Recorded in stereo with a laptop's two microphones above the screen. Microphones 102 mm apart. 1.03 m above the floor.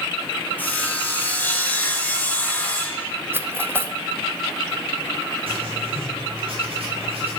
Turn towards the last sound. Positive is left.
turn(degrees=-65)  # may be behind; listen again after turning